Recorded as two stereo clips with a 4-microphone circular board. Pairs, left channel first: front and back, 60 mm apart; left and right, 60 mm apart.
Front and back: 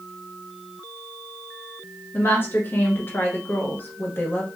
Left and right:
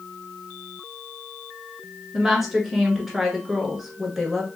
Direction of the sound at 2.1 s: 5° right.